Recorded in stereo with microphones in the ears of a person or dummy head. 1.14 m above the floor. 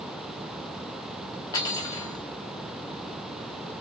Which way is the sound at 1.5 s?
15° left (ahead or behind).